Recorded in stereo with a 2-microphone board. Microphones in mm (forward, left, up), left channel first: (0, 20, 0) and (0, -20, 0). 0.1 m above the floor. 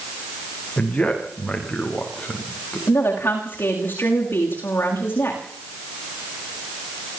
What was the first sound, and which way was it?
A man speaking, 15° left (ahead or behind).